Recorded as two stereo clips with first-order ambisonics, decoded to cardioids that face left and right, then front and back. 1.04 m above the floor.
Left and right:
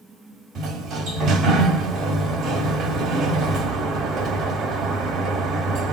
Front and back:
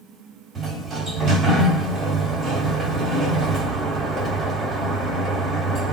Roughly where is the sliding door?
Behind right.